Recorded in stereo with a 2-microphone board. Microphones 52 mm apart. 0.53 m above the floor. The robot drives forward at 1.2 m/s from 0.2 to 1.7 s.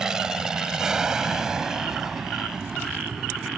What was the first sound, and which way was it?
An aircraft, 10° right (ahead or behind).